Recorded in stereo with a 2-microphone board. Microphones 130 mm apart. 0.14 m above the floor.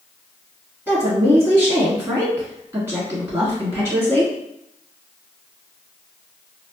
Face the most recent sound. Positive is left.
turn(degrees=-20)  # may be behind; listen again after turning